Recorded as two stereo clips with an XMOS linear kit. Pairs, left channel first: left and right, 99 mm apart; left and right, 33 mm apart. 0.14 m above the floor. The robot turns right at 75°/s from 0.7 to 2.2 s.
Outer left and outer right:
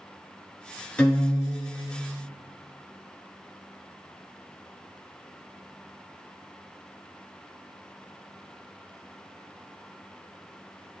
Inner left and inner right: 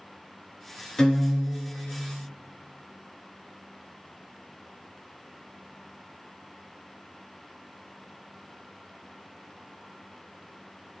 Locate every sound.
1.0 s a guitar: 15° left, 0.7 m; by 2.0 s 95° left, 0.7 m